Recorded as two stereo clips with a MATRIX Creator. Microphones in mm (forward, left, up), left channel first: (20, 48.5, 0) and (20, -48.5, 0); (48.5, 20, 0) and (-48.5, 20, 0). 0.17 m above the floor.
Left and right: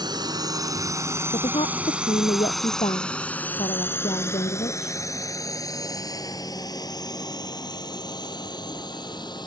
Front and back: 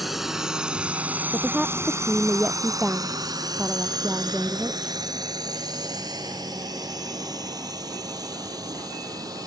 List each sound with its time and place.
0.0 s a drone: 90° right; by 9.5 s 130° left
1.3 s a woman speaking: 100° left